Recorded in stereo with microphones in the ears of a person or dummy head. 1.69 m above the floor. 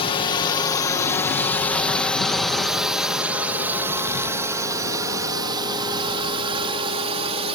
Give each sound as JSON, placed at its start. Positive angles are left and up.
{"t": 0.0, "sound": "a drone", "side_deg": 30}